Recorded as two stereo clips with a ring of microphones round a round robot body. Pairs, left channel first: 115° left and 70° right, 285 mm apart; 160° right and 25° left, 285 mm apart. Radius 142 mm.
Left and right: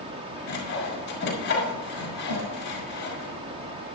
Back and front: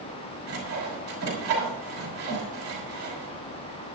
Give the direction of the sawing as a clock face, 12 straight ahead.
10 o'clock.